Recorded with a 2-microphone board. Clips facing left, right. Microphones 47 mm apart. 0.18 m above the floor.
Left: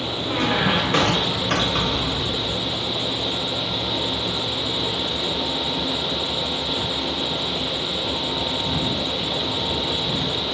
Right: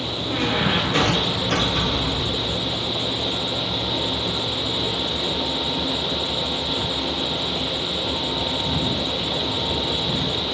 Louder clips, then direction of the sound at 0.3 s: Left 1 dB; 55° left (ahead or behind).